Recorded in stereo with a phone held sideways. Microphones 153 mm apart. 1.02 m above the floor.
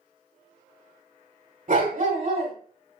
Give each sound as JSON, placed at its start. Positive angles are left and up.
{"t": 1.7, "sound": "a dog barking", "side_deg": -60, "distance_m": 2.0}